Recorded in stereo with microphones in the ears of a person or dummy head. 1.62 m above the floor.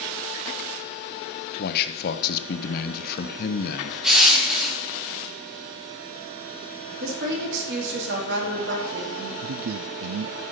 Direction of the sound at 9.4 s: 70° right (ahead or behind).